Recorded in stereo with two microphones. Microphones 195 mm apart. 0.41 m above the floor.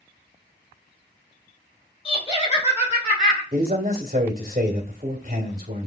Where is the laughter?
25° left (ahead or behind), 1.4 m; by 3.4 s 35° left (ahead or behind), 1.8 m.